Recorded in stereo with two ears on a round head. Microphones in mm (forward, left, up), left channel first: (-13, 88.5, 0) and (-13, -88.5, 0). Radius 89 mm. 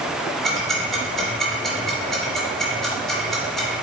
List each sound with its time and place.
0.4 s ticking: centre (ahead or behind), 3.5 m